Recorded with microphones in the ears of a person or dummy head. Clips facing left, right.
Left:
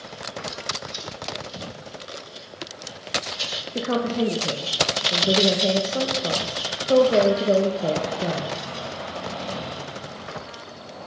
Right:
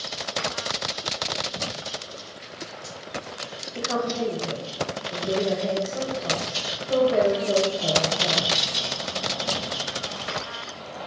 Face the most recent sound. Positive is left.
turn(degrees=55)  # may be behind; listen again after turning